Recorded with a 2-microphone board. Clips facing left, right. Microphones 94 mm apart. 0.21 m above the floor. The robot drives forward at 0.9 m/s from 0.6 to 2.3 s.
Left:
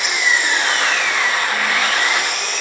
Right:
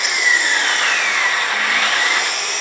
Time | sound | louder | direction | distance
0.0 | an engine running | even | 5° left (ahead or behind) | 1.8 m